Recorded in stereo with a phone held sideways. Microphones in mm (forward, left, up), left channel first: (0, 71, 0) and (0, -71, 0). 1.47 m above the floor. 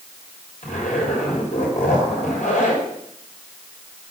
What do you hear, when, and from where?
0.6 s a zipper: 65° left (ahead or behind), 3.5 m